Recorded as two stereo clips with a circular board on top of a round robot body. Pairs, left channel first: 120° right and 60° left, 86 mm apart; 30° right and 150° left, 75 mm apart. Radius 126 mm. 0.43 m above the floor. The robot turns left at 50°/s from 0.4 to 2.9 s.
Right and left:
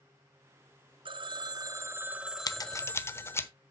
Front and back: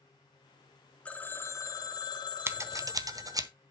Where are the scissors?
160° right, 1.1 m; by 3.5 s straight behind, 1.1 m.